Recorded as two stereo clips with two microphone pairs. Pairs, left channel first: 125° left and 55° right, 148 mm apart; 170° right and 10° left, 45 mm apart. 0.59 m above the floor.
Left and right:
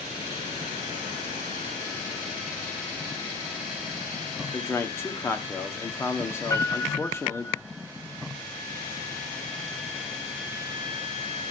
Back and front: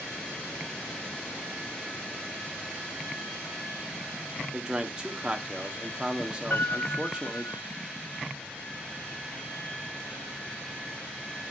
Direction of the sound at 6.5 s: 170° right.